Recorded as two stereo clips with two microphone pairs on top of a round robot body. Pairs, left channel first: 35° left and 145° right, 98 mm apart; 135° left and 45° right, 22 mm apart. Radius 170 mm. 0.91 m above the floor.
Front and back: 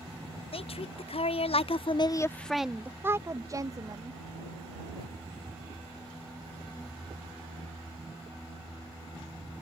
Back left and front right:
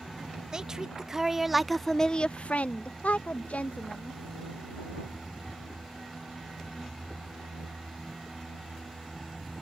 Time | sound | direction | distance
0.5 | a woman speaking | 10° left | ?